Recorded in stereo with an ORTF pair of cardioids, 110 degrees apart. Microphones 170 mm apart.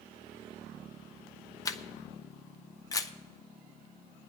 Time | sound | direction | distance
1.6 | a camera shutter | 20° left | 0.8 m